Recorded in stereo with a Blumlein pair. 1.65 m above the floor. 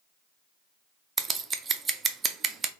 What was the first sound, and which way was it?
Scissors, 15° right.